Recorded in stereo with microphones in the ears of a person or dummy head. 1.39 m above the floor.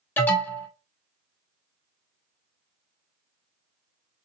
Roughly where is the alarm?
Centre.